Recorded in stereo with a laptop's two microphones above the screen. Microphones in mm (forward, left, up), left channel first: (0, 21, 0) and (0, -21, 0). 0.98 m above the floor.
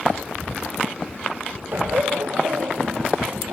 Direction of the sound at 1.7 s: 55° right (ahead or behind).